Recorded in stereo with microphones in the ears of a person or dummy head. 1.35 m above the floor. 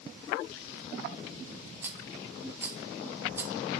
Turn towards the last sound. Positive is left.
turn(degrees=-10)  # may be behind; listen again after turning